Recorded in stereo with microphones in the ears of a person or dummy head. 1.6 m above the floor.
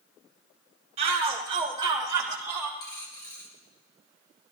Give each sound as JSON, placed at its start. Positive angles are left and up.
{"t": 1.0, "sound": "a shout", "side_deg": -35, "distance_m": 1.4}
{"t": 2.8, "sound": "a dropped coin", "side_deg": 20, "distance_m": 2.0}